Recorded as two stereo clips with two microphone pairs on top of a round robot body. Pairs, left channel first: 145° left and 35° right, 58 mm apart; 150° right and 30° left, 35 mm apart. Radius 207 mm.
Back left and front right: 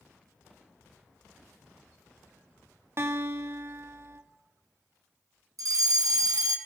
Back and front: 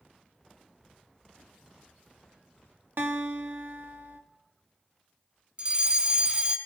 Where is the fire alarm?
35° right, 3.5 m.